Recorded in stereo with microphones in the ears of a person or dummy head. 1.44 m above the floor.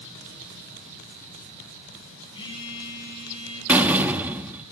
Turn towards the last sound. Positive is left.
turn(degrees=-10)  # may be behind; listen again after turning